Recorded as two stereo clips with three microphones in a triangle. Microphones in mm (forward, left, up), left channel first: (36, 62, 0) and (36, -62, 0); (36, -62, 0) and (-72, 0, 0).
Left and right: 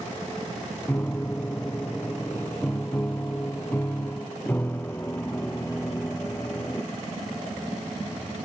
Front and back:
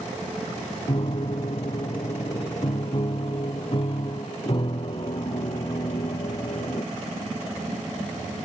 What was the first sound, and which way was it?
A piano, 15° left.